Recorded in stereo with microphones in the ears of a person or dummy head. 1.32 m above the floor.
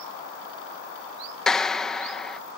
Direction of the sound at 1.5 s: 5° left (ahead or behind).